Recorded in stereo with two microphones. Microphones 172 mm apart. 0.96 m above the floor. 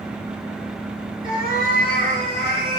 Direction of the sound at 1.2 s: 55° left (ahead or behind).